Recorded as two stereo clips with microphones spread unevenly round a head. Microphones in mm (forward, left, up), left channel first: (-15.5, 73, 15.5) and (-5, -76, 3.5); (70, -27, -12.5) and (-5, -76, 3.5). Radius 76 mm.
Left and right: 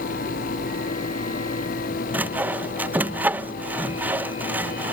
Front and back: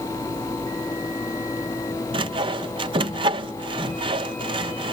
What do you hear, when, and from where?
2.1 s sawing: 155° right